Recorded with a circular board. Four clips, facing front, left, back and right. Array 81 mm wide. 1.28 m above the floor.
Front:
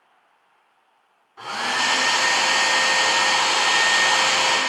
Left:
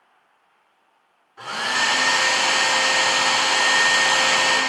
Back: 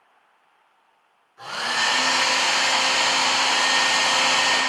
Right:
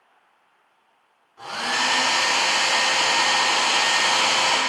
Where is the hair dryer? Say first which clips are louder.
Left 1 dB, front 1 dB; 25° left, 2 m.